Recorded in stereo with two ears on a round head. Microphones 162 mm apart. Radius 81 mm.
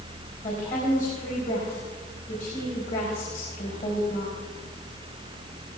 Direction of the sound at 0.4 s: 50° left (ahead or behind).